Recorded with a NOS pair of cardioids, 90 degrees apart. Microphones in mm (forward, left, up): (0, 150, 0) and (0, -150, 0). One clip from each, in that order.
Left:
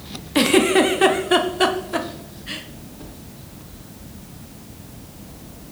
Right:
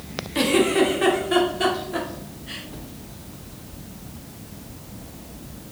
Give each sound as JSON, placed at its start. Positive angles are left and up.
{"t": 0.3, "sound": "a giggle", "azimuth_deg": 40, "distance_m": 1.0}